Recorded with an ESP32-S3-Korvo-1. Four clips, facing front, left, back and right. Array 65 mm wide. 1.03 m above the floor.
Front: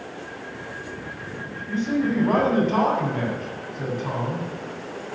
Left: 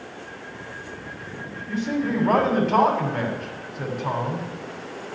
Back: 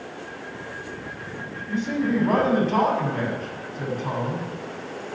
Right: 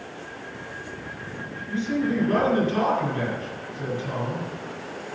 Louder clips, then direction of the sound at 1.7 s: Even, front 1 dB; 90° left.